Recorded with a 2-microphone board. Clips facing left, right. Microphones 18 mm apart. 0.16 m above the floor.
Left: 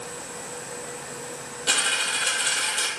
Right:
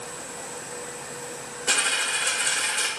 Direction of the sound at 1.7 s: 70° left (ahead or behind).